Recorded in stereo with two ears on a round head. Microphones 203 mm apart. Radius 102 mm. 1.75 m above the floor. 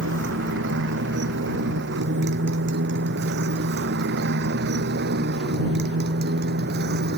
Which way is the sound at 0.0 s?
50° right (ahead or behind).